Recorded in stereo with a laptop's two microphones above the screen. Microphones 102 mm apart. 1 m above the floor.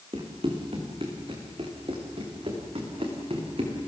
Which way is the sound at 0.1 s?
60° right (ahead or behind).